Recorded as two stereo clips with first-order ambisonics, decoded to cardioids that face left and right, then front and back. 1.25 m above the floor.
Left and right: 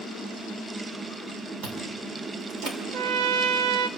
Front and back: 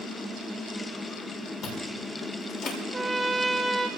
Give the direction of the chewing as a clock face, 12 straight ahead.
2 o'clock.